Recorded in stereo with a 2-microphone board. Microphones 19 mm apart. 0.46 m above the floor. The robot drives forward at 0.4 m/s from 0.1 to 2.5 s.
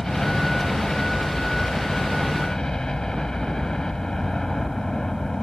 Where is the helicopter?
40° left (ahead or behind).